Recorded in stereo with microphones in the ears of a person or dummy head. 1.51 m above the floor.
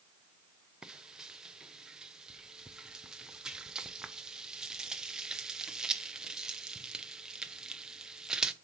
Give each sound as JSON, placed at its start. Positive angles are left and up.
{"t": 0.8, "sound": "frying", "side_deg": -5, "distance_m": 0.5}